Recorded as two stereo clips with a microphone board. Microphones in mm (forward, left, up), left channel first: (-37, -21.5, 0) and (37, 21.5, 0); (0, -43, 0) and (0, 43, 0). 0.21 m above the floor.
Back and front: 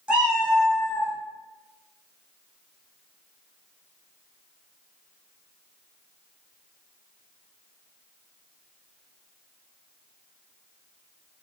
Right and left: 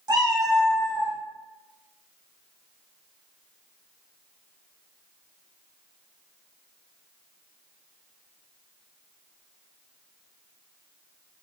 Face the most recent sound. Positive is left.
turn(degrees=175)